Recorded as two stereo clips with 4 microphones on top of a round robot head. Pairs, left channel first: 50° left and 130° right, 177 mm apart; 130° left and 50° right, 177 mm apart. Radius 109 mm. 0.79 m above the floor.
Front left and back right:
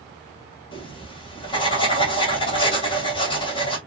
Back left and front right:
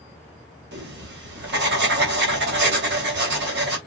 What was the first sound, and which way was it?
Writing, 15° right.